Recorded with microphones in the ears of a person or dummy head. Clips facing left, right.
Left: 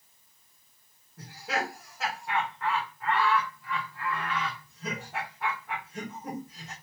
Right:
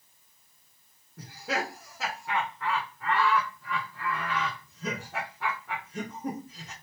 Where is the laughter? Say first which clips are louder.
Even; 80° right, 1.2 m.